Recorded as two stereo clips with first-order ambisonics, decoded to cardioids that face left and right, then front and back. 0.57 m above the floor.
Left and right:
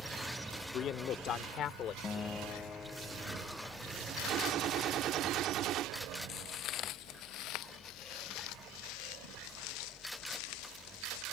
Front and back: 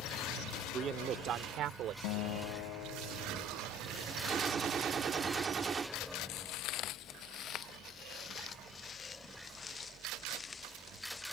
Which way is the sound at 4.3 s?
120° right.